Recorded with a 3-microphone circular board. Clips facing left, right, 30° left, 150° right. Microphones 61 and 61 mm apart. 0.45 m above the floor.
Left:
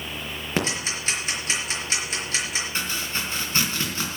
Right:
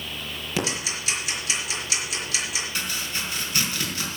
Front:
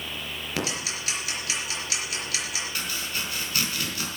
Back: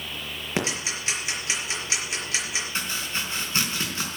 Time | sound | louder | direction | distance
0.6 | ticking | left 2 dB, back 3 dB | 145° left | 4.5 m
2.8 | chopping | left 2 dB, back 2 dB | 145° left | 3.5 m